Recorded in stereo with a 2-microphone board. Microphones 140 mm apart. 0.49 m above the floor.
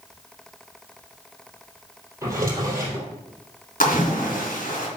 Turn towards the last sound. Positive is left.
turn(degrees=85)